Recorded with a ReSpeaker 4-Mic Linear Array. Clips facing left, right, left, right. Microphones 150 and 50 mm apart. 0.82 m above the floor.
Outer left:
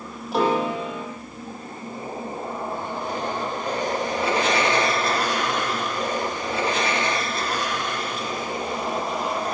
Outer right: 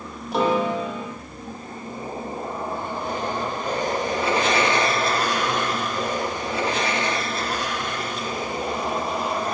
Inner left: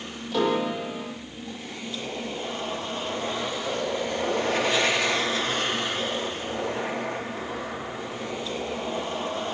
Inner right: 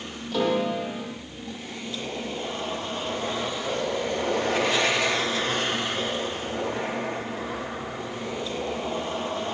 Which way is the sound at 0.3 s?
Centre (ahead or behind).